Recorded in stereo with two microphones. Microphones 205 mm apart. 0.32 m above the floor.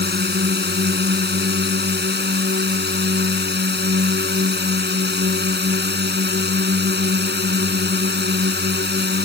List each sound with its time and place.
0.0 s a drone: 50° right (ahead or behind)